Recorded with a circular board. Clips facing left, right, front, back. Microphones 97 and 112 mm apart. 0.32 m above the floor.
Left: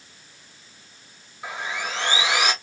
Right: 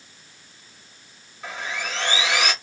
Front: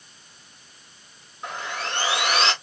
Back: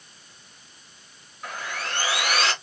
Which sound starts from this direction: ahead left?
Sawing, at 1.4 s.